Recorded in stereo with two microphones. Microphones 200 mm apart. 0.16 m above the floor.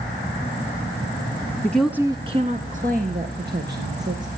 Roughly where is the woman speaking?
Centre.